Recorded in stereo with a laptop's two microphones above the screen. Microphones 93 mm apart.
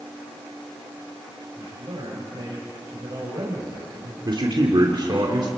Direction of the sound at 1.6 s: 60° right (ahead or behind).